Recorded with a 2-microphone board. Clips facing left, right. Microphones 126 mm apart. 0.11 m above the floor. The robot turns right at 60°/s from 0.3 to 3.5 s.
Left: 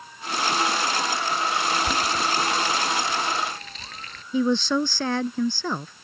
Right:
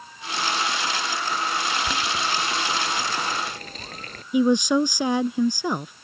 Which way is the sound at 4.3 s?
15° right (ahead or behind).